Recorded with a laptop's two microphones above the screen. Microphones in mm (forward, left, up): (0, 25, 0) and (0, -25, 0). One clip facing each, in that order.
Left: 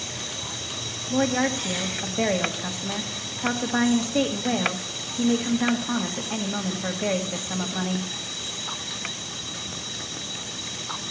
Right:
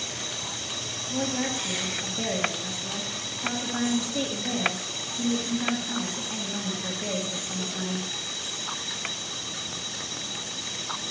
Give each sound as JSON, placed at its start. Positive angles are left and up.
{"t": 1.1, "sound": "a woman speaking", "side_deg": 55, "distance_m": 1.5}